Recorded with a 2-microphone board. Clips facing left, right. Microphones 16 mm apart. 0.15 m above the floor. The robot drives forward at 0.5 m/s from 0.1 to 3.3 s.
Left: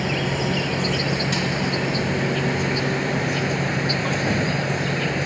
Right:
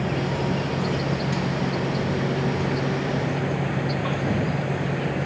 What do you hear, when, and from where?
0.0 s an insect: 50° left (ahead or behind); by 5.3 s 60° left (ahead or behind)